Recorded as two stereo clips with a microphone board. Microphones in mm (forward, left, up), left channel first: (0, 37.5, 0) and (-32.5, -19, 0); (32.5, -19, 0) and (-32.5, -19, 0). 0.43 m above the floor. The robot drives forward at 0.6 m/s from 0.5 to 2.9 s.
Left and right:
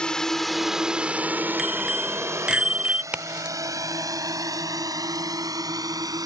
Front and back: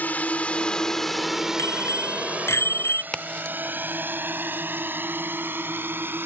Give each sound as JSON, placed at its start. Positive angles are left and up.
{"t": 0.0, "sound": "a drone", "azimuth_deg": 5}
{"t": 1.6, "sound": "a bicycle bell", "azimuth_deg": -40}
{"t": 3.1, "sound": "a crack", "azimuth_deg": -65}